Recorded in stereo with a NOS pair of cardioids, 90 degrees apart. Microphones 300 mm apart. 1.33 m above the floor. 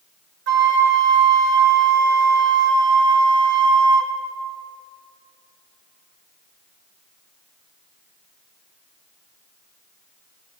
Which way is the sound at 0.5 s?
35° right.